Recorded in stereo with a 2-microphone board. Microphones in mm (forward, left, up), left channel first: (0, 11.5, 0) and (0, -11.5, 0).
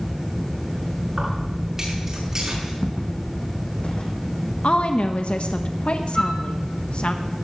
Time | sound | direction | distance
1.1 | keys jangling | 25° right (ahead or behind) | 7.5 m
2.8 | footsteps | 60° left (ahead or behind) | 2.5 m
4.6 | a woman speaking | 60° left (ahead or behind) | 0.9 m
6.2 | a flute | 25° left (ahead or behind) | 1.6 m